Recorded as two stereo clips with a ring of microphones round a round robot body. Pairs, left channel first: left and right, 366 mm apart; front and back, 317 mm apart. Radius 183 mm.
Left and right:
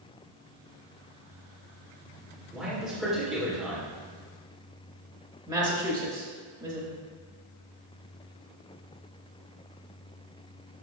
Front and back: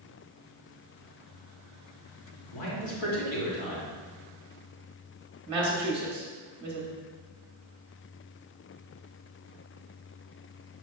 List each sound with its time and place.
2.5 s a man speaking: straight ahead, 2 m
5.5 s a woman speaking: 145° right, 1.0 m